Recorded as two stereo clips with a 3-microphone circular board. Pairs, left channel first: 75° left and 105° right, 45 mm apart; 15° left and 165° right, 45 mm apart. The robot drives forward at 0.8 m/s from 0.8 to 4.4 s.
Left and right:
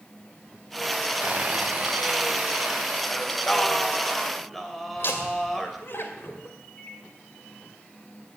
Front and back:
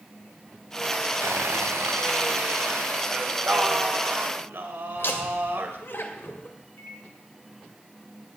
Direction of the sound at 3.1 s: 130° left.